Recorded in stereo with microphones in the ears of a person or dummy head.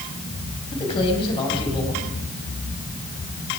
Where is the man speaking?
25° left (ahead or behind), 7 m.